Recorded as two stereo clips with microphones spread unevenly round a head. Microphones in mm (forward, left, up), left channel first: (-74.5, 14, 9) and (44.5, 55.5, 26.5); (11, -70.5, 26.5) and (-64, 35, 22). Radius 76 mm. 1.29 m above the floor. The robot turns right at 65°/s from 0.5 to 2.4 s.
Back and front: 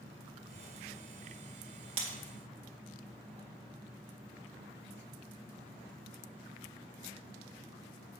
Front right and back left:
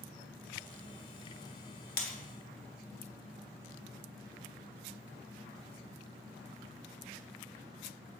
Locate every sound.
2.0 s breaking glass: 30° right, 1.8 m; by 2.2 s 15° right, 1.8 m